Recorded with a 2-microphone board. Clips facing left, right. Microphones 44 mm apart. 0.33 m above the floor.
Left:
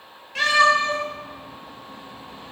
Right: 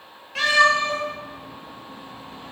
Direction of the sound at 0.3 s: Centre (ahead or behind).